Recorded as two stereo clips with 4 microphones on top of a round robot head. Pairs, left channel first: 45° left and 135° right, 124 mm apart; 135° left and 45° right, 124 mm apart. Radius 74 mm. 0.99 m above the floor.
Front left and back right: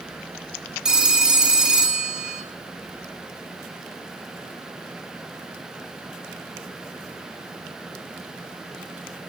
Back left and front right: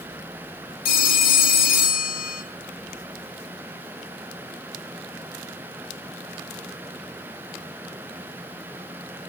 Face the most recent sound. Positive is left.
turn(degrees=140)